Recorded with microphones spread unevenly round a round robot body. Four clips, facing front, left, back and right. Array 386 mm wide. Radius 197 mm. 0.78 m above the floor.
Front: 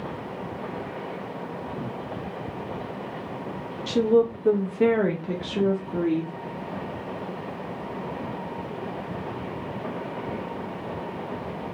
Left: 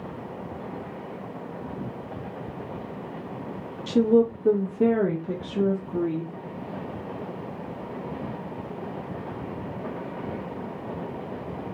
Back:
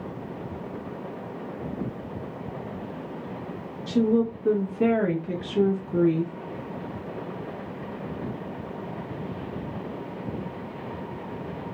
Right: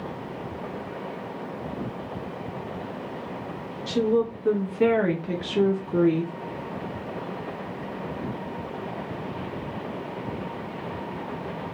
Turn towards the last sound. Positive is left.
turn(degrees=-95)